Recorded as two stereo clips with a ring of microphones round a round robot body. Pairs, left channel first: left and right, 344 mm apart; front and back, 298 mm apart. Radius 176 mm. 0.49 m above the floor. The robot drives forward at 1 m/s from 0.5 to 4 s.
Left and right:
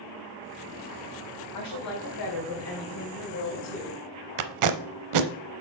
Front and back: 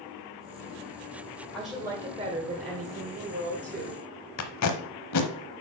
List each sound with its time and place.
1.5 s a woman speaking: 85° left, 2.0 m; by 4.0 s 145° left, 3 m
4.4 s tape being pulled: 50° right, 0.7 m